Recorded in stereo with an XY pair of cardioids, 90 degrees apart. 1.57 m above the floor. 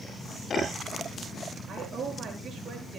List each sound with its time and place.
1.7 s a woman speaking: 50° right, 8 m